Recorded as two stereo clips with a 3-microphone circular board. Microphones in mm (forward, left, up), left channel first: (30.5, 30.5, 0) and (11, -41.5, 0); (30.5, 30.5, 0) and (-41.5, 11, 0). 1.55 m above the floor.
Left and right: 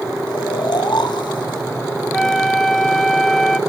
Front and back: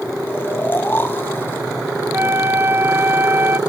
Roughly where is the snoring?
Left.